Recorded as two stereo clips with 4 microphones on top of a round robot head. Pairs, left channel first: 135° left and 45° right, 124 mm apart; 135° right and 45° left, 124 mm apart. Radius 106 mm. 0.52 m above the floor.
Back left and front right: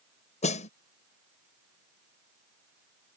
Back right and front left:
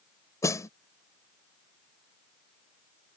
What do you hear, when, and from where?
0.4 s a snare drum: 160° left